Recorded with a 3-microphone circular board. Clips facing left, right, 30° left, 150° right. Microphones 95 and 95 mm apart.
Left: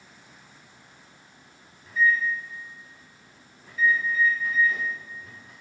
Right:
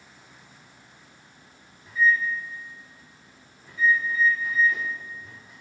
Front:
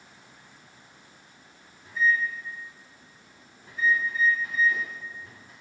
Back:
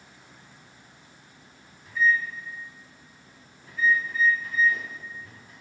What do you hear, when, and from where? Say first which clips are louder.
1.8 s a microwave: right 1 dB, back 1 dB; 85° left, 1.7 m